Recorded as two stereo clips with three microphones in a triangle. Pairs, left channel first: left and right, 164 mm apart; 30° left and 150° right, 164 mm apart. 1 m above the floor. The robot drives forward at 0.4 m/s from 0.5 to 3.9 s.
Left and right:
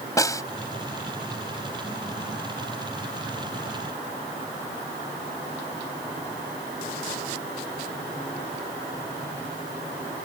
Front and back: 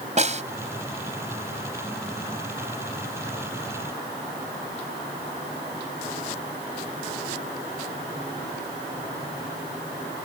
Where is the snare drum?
160° left.